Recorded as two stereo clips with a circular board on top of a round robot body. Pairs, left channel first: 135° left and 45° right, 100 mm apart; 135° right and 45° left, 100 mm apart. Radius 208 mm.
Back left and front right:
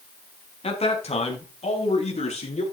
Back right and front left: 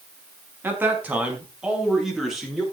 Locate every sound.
0.6 s a man speaking: 115° left, 5 m; by 2.6 s 135° left, 6.5 m